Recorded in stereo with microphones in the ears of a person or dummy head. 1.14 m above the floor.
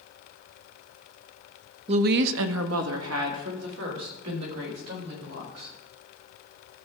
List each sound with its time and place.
1.9 s a woman speaking: 25° right (ahead or behind), 0.5 m; by 5.8 s 75° right (ahead or behind), 5 m